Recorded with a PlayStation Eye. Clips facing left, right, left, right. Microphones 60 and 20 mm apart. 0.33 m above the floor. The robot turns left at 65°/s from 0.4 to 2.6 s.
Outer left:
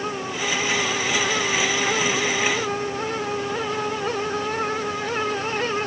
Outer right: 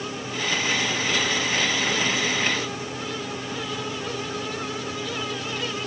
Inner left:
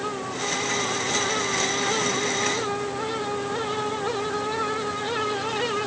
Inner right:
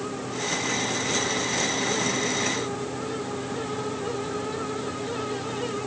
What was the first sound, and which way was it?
Only background noise.